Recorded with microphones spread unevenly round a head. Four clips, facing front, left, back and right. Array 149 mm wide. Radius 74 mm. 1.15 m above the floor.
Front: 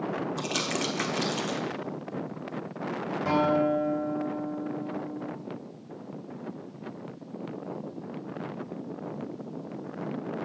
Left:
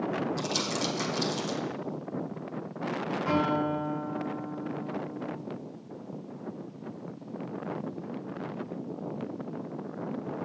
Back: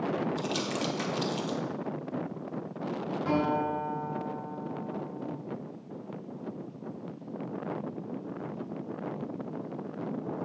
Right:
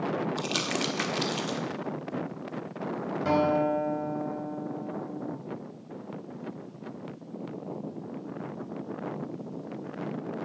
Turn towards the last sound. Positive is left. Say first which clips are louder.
# right 4 dB, front 4 dB
turn(degrees=-60)